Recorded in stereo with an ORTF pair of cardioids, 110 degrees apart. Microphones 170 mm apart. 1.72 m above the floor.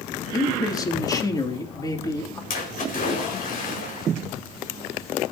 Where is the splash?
50° left, 5 m.